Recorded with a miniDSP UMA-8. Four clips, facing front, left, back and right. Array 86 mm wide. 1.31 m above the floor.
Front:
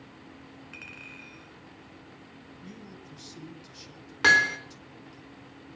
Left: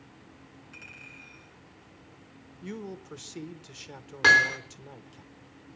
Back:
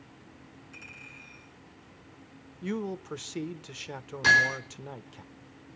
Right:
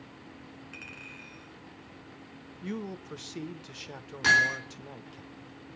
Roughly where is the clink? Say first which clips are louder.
Right 3 dB, front 3 dB; ahead right.